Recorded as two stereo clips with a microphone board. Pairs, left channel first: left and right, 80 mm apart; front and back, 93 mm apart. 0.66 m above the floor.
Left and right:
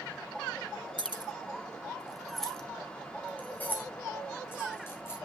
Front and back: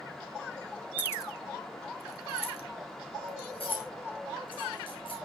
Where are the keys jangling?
70° right, 1.4 m; by 5.2 s 30° left, 5.5 m.